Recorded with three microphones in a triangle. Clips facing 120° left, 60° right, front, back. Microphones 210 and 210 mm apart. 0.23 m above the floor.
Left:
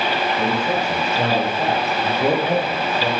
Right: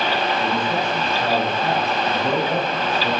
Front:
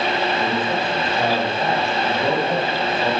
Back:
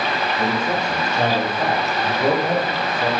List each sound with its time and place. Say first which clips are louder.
0.4 s a man speaking: left 2 dB, even; 120° left, 6 m; by 3.1 s 100° left, 5 m